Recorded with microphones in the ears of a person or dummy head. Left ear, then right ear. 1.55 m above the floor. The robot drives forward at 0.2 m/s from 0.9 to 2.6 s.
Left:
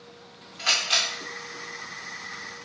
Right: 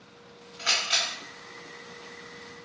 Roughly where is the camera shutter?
Centre.